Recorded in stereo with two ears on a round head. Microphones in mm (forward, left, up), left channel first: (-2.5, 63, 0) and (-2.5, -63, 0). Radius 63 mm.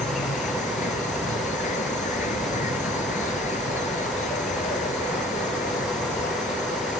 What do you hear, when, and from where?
0.0 s an insect: 55° left (ahead or behind)